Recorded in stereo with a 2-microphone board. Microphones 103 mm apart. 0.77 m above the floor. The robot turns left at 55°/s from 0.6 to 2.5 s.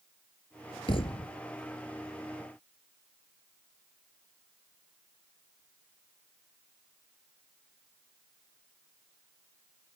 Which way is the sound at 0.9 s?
55° left (ahead or behind).